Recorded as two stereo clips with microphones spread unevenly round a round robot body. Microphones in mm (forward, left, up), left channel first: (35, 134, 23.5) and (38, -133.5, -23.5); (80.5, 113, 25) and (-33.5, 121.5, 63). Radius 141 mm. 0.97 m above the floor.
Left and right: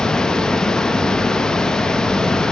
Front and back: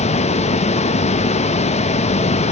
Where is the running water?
Straight ahead, 0.8 m.